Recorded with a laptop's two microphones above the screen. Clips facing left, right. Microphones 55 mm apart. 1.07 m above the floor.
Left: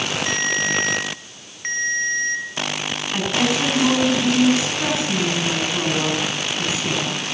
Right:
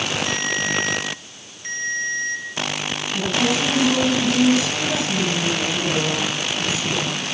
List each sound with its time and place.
0.3 s a ringtone: 55° left (ahead or behind), 4 m
3.1 s a woman speaking: 30° left (ahead or behind), 9.5 m